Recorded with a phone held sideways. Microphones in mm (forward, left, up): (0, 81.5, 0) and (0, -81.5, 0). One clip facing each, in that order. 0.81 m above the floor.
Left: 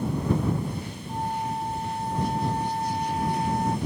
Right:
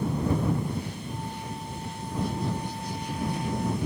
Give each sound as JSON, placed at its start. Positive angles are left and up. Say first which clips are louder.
{"t": 1.1, "sound": "a flute", "louder": "left 6 dB", "side_deg": 60}